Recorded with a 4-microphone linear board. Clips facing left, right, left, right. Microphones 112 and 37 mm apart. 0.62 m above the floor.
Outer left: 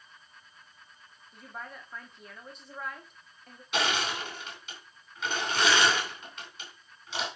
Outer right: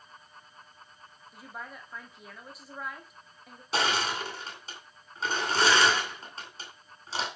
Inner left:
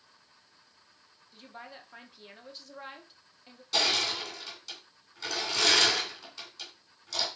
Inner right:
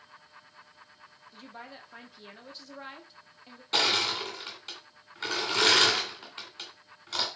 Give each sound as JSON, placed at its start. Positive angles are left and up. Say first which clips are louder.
{"t": 1.3, "sound": "a woman speaking", "louder": "even, inner right 1 dB", "side_deg": -5, "distance_m": 1.2}
{"t": 3.7, "sound": "crushing", "louder": "outer right 1 dB, inner right 2 dB", "side_deg": -35, "distance_m": 2.5}